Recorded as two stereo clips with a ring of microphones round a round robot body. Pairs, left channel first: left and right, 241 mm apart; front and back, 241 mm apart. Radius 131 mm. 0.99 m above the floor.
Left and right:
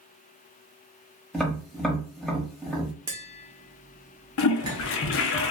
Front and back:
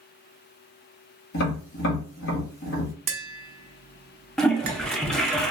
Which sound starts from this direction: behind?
Tapping, at 3.1 s.